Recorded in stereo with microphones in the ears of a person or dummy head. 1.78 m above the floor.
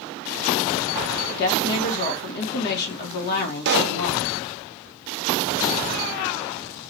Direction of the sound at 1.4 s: 60° left (ahead or behind).